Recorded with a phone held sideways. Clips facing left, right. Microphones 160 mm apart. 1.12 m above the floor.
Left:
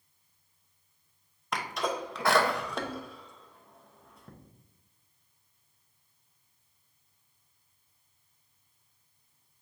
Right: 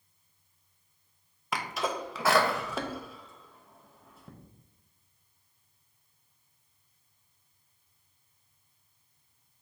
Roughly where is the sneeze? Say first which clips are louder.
Even; centre.